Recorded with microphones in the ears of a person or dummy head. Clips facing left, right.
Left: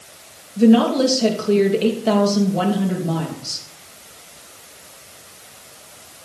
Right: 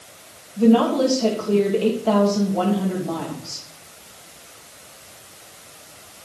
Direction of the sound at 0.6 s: 20° left (ahead or behind).